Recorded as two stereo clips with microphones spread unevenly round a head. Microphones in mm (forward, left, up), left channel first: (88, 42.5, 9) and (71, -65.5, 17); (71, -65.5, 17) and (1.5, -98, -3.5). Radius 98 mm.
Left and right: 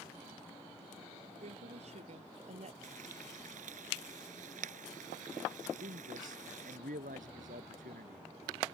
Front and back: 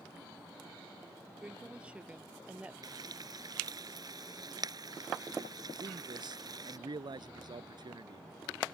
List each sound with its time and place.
1.4 s a woman speaking: 80° right
2.8 s frying: 120° right
5.8 s a man speaking: 130° right